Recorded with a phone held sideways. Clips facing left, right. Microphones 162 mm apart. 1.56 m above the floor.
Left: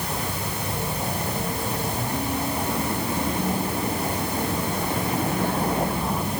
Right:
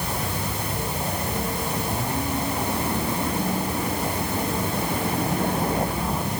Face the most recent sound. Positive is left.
No sound to turn to.